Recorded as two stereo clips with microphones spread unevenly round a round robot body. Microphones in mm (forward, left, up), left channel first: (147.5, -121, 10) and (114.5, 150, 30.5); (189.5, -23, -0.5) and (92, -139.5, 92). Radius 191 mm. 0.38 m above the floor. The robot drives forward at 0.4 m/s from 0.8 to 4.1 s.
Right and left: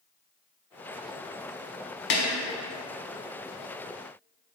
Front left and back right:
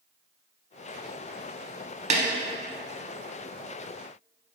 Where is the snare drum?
90° right, 0.7 m; by 2.2 s 95° right, 0.7 m.